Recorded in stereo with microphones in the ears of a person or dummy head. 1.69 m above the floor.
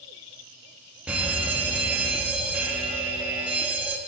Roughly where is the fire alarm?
Centre.